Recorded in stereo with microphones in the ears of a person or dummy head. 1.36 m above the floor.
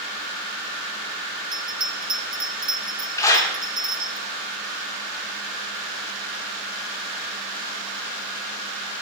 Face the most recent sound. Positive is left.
turn(degrees=15)  # may be behind; listen again after turning